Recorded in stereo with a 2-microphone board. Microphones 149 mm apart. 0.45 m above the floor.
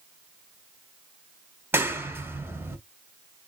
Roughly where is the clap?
Centre.